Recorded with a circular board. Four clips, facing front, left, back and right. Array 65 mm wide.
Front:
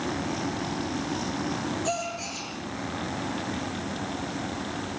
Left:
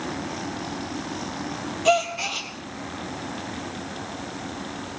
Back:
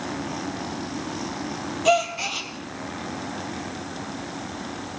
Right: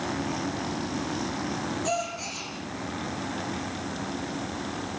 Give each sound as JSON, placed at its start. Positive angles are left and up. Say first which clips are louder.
{"t": 1.9, "sound": "a gasp", "louder": "left 8 dB, back 9 dB", "azimuth_deg": 135, "distance_m": 3.0}